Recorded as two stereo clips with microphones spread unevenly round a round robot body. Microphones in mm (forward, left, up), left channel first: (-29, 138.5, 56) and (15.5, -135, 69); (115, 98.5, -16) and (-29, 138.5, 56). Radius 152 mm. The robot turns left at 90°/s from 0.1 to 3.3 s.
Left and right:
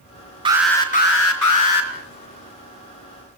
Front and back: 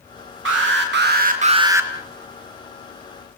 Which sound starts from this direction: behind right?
An alarm, at 0.5 s.